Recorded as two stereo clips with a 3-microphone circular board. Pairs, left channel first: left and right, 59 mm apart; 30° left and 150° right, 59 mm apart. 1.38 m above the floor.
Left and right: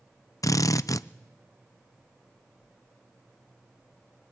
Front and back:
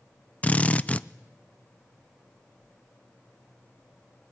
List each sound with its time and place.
0.4 s a drill: 95° left, 0.6 m